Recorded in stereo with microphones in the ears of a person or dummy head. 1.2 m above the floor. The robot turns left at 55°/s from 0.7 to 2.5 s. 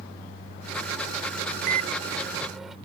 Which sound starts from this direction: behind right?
A microwave, at 1.7 s.